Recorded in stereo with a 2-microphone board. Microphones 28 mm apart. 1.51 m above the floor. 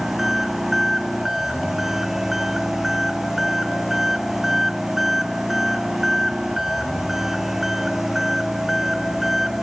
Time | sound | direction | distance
0.0 | an engine running | 10° right (ahead or behind) | ?